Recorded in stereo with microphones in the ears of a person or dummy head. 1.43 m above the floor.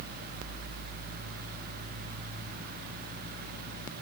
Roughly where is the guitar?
I don't hear a guitar.